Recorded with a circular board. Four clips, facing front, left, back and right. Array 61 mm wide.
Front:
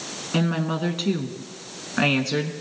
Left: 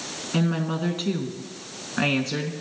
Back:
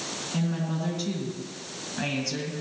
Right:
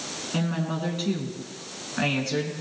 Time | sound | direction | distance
0.3 | a woman speaking | 20° left | 2 m